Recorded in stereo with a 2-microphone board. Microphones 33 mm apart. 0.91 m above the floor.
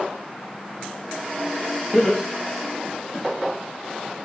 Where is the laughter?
20° left (ahead or behind), 1.2 m; by 3.2 s 5° right (ahead or behind), 1.7 m.